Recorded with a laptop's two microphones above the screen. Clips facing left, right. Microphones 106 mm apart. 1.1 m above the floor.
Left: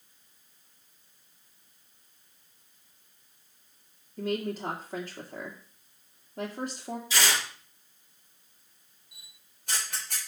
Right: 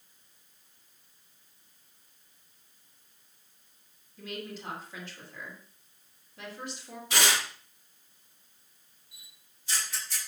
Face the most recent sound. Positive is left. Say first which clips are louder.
# left 2 dB
turn(degrees=60)  # may be behind; listen again after turning